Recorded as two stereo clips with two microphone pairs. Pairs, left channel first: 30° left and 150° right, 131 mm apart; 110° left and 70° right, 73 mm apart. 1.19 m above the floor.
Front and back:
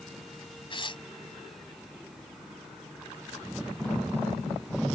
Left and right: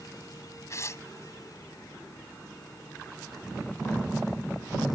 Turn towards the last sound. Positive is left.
turn(degrees=75)